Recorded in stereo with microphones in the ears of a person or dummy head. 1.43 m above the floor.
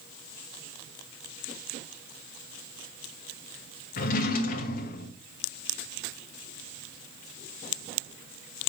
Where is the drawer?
45° left (ahead or behind), 0.9 m.